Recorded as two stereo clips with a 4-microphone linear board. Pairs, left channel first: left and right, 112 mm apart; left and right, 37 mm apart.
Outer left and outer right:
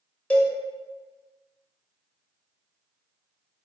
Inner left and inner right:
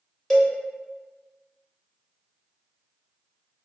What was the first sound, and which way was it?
A cowbell, 10° left (ahead or behind).